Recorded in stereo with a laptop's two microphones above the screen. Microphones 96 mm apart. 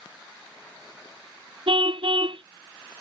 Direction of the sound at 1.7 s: 80° right.